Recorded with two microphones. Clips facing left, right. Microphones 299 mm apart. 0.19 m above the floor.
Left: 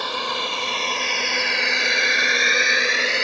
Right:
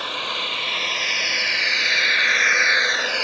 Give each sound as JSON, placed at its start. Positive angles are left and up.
{"t": 0.0, "sound": "a drone", "side_deg": 55}